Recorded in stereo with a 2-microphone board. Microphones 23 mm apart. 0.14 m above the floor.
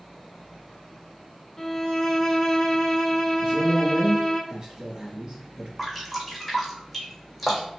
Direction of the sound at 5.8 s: 10° right (ahead or behind).